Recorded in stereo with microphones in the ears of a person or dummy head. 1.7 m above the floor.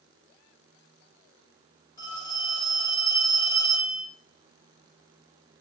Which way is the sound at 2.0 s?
20° left (ahead or behind).